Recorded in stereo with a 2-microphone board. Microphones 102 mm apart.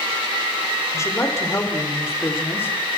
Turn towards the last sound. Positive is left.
turn(degrees=20)  # may be behind; listen again after turning